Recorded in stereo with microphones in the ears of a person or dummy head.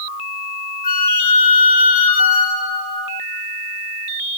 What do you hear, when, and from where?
0.8 s a flute: 40° left (ahead or behind), 0.7 m